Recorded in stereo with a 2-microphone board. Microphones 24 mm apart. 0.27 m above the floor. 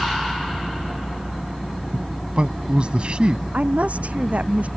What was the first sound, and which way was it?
A man speaking, 50° right (ahead or behind).